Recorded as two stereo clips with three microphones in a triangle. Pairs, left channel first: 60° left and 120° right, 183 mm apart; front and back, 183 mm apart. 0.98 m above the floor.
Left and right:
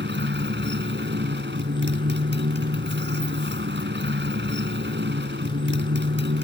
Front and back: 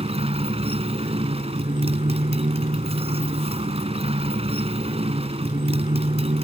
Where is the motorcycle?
125° right.